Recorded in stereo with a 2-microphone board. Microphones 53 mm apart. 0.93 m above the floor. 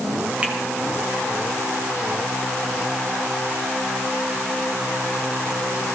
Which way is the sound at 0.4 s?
25° right (ahead or behind).